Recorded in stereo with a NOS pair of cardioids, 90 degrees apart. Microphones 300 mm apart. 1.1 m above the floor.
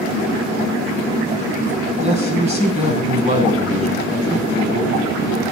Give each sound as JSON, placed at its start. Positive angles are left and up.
{"t": 2.0, "sound": "a man speaking", "azimuth_deg": -20, "distance_m": 9.5}